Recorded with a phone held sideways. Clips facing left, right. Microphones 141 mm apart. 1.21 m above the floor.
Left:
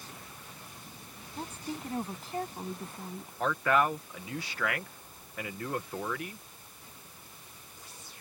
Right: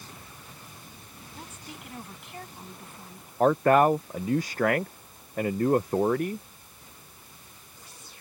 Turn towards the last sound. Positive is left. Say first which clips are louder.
# right 8 dB
turn(degrees=-45)  # may be behind; listen again after turning